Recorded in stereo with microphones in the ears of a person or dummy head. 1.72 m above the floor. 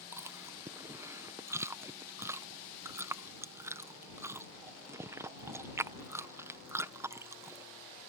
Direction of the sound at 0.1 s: 20° right (ahead or behind).